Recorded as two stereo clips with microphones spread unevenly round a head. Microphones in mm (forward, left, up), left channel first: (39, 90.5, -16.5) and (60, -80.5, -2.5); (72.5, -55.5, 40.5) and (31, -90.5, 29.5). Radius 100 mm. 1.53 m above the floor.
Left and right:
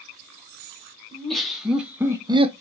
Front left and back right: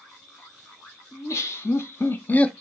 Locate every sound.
1.1 s laughter: 10° left, 1.5 m; by 2.5 s 35° right, 0.5 m